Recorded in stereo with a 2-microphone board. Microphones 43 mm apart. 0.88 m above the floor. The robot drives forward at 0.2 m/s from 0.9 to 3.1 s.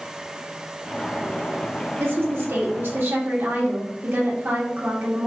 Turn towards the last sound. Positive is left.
turn(degrees=-60)  # may be behind; listen again after turning